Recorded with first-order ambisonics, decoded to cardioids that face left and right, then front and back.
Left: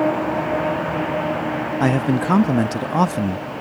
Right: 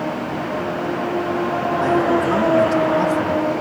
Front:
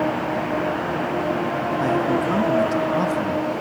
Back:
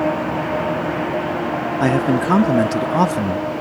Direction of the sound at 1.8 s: 135° left.